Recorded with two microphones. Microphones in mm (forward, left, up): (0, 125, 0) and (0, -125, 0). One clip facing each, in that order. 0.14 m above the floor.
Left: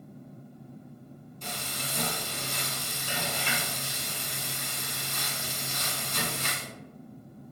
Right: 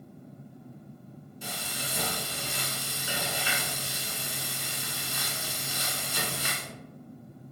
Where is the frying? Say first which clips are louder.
Even; 10° right (ahead or behind), 1.0 m.